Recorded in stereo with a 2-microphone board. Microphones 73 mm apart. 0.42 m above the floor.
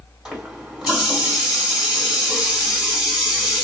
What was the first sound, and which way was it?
A running tap, 10° right (ahead or behind).